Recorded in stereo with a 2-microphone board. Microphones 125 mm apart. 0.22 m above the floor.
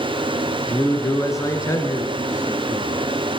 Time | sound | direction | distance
0.7 | a man speaking | 25° left (ahead or behind) | 3 m